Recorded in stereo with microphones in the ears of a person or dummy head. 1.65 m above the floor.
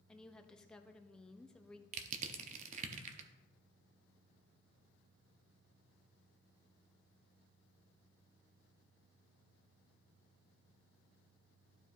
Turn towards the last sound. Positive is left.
turn(degrees=-40)  # may be behind; listen again after turning